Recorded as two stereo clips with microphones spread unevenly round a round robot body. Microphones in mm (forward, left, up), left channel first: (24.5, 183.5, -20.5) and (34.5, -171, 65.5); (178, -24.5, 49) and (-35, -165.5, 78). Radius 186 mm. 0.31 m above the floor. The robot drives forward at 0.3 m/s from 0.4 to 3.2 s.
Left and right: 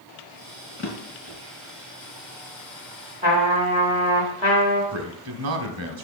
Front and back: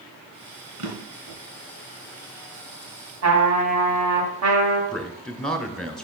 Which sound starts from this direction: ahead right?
A man speaking, at 4.9 s.